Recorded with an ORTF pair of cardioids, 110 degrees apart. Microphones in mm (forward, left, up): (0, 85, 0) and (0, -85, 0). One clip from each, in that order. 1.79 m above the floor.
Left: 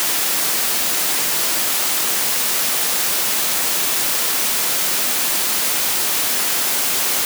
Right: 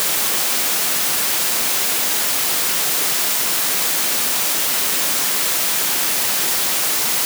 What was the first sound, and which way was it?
Only background noise.